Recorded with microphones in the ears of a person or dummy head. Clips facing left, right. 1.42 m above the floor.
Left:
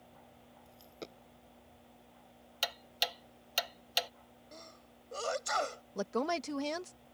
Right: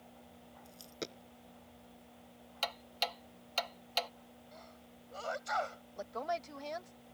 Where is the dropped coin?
25° right (ahead or behind).